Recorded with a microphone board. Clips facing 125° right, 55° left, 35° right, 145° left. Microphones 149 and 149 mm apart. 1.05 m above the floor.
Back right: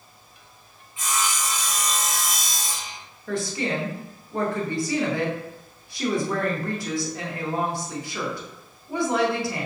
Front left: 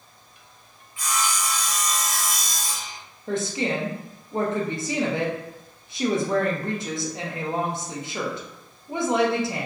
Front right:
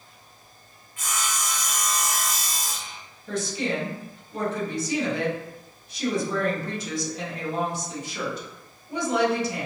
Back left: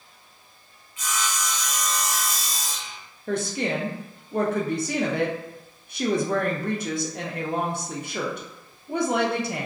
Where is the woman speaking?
125° left, 0.6 m.